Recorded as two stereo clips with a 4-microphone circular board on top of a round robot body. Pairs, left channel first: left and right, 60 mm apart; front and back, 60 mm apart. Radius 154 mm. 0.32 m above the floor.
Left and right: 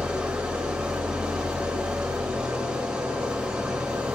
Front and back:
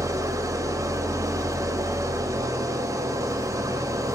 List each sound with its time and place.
0.0 s an engine running: 165° right, 1.7 m